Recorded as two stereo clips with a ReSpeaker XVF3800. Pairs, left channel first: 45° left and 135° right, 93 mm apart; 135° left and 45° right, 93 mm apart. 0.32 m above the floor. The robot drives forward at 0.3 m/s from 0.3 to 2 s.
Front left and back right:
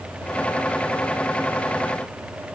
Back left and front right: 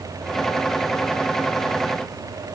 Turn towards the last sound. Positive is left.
No sound to turn to.